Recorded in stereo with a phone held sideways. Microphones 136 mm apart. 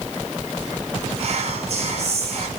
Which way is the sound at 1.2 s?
50° right (ahead or behind).